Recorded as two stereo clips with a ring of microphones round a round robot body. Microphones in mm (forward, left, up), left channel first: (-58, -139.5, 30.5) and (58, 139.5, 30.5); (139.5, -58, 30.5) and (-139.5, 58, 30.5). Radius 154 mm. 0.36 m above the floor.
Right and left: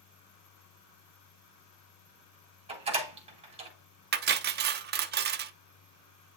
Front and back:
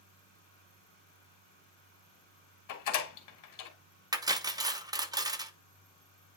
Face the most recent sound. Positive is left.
turn(degrees=90)